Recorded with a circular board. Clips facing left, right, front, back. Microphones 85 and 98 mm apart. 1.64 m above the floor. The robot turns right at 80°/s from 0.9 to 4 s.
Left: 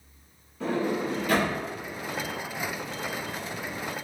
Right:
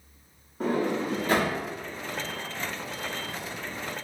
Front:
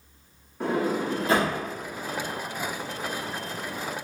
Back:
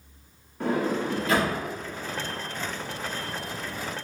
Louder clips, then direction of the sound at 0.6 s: Right 1 dB, even; 85° right.